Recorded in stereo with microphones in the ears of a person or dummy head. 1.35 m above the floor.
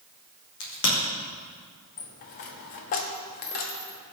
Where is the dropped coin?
50° left (ahead or behind), 0.9 m.